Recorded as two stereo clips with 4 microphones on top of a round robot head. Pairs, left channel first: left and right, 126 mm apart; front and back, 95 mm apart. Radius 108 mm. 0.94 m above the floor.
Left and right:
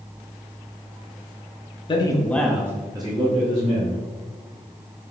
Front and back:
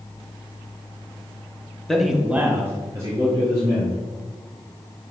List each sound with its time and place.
1.9 s a man speaking: 80° left, 0.8 m; by 4.0 s 125° right, 1.8 m